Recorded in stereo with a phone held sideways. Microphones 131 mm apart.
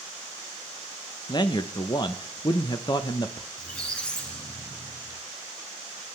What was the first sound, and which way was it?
A man speaking, 35° left (ahead or behind).